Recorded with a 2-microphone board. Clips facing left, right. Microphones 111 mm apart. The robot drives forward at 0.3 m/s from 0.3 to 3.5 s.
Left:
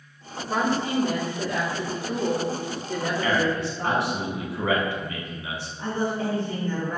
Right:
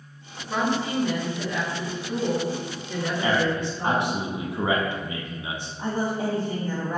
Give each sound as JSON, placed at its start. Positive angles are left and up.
{"t": 0.5, "sound": "a woman speaking", "side_deg": 60, "distance_m": 2.0}
{"t": 3.2, "sound": "a man speaking", "side_deg": -15, "distance_m": 0.7}
{"t": 5.8, "sound": "a woman speaking", "side_deg": -25, "distance_m": 1.1}